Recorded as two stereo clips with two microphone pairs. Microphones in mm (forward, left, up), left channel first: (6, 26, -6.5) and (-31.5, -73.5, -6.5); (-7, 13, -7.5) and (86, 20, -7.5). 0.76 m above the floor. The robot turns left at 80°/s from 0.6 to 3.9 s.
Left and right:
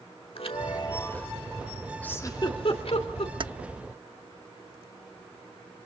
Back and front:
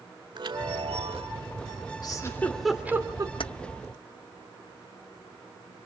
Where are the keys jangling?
150° right, 0.7 m; by 3.5 s 160° right, 0.7 m.